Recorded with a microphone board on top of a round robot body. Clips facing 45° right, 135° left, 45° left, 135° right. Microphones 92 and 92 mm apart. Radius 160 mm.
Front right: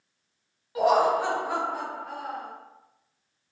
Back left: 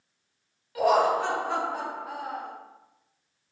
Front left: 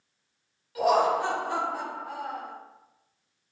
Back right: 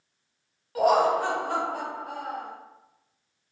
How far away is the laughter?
About 1.2 m.